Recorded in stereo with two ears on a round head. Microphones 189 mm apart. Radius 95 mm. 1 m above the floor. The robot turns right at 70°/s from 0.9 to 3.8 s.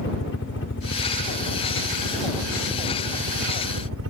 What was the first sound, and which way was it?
A helicopter, 70° left.